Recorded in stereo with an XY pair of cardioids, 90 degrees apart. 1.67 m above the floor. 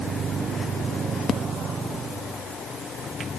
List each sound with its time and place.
Only background noise.